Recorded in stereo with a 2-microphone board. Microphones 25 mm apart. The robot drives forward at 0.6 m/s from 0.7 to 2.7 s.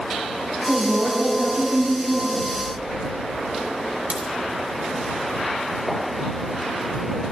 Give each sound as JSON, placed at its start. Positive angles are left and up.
{"t": 0.7, "sound": "a woman speaking", "side_deg": -75, "distance_m": 4.0}
{"t": 2.6, "sound": "a sliding door", "side_deg": -40, "distance_m": 5.5}
{"t": 4.1, "sound": "a crack", "side_deg": -65, "distance_m": 3.0}